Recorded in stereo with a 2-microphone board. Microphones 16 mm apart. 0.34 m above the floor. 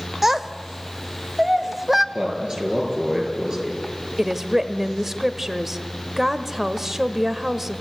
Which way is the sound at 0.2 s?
20° right (ahead or behind).